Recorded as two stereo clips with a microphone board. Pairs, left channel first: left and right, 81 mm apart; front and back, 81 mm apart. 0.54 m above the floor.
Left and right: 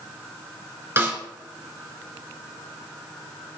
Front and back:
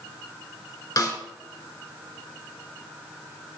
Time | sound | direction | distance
1.0 | a snare drum | 35° right | 2 m